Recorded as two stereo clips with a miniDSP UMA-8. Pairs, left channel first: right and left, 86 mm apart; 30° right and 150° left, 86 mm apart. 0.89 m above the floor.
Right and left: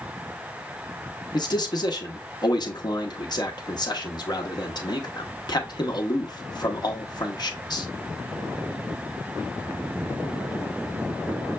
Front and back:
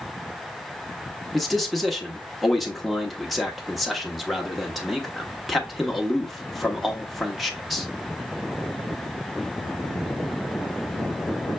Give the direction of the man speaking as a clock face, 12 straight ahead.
4 o'clock.